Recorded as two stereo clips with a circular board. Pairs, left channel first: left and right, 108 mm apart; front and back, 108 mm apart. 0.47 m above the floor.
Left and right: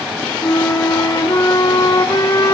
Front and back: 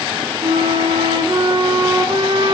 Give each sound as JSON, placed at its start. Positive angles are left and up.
{"t": 0.4, "sound": "a flute", "azimuth_deg": 145, "distance_m": 2.5}